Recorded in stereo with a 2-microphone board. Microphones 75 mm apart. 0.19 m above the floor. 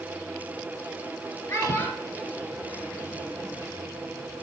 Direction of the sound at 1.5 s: 30° left (ahead or behind).